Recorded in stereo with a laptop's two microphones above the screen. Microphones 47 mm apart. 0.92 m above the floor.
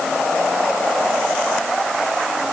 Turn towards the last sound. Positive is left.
No sound to turn to.